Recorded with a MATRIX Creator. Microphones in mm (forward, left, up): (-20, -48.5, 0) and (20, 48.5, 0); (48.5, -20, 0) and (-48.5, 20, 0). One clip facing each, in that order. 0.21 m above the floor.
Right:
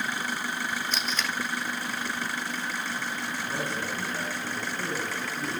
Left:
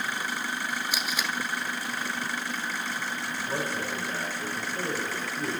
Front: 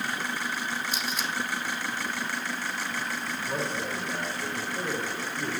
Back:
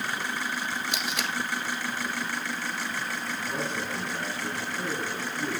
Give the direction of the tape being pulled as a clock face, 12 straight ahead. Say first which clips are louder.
Even, back 1 dB; 7 o'clock.